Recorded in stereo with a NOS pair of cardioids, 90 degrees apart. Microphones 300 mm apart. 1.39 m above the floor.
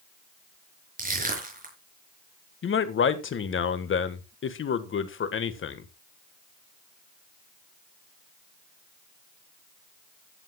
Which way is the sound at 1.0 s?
30° right.